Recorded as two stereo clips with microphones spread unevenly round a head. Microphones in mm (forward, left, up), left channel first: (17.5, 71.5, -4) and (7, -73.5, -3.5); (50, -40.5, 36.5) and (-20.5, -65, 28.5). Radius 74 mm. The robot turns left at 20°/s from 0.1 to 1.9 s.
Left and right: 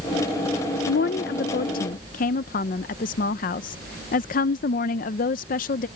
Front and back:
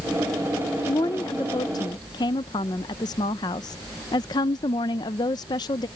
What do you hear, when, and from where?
0.9 s a woman speaking: 80° left; by 5.9 s 60° left